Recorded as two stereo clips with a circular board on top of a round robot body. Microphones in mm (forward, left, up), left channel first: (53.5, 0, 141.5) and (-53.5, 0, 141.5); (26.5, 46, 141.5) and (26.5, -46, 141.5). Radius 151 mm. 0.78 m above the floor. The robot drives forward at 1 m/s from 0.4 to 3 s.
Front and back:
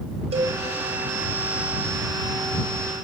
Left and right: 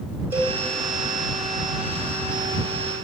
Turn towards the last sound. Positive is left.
turn(degrees=-165)